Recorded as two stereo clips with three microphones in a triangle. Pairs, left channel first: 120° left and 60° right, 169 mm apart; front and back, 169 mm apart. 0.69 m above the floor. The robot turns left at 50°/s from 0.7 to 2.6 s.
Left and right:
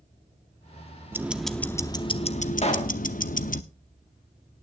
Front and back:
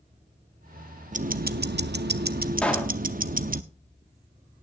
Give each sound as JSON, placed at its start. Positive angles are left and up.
{"t": 1.1, "sound": "ticking", "azimuth_deg": -135, "distance_m": 0.6}
{"t": 2.6, "sound": "a pop", "azimuth_deg": 80, "distance_m": 1.4}